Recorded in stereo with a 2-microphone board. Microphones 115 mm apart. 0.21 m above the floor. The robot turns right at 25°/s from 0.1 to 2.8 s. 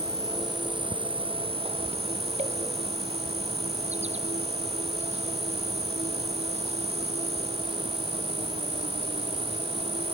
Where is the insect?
150° right; by 10.2 s 85° right.